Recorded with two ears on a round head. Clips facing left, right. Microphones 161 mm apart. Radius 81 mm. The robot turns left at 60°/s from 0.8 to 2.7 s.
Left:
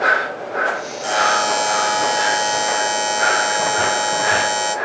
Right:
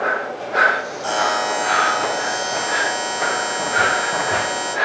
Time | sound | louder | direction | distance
1.0 | a buzzer | left 2 dB | 160° left | 1.6 m